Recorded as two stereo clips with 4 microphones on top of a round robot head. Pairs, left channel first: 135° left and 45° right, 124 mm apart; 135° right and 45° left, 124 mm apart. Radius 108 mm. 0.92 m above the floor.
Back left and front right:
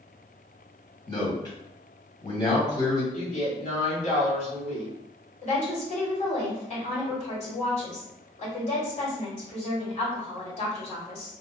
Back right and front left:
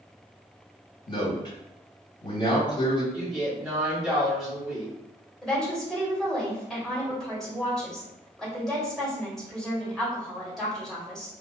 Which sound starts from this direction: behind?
A man speaking, at 1.1 s.